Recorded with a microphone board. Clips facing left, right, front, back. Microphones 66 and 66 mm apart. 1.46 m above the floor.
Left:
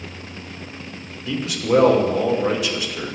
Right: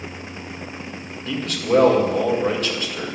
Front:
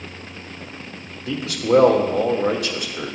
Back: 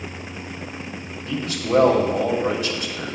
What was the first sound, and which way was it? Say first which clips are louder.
A man speaking: left 1 dB, front 4 dB; 5° left.